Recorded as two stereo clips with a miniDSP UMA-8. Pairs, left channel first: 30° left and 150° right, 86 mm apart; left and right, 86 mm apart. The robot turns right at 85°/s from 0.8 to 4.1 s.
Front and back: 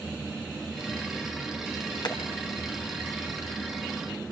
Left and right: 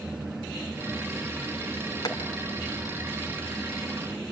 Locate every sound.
2.0 s tapping: 50° left, 3 m; by 2.2 s 60° left, 3 m